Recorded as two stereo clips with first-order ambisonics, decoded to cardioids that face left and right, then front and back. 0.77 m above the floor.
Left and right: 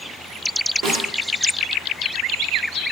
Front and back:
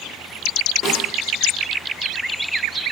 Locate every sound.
0.8 s a snare drum: 55° right, 1.9 m